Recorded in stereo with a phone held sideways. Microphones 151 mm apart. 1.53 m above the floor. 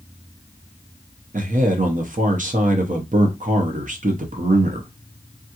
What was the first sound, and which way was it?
A man speaking, 60° right (ahead or behind).